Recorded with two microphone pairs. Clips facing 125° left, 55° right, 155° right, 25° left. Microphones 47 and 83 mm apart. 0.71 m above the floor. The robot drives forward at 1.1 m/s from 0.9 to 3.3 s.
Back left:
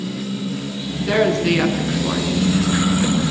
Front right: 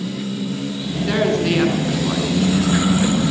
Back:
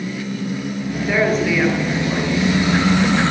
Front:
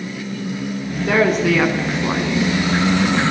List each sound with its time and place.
1.0 s a woman speaking: 40° left, 9 m; by 2.6 s 45° left, 7.5 m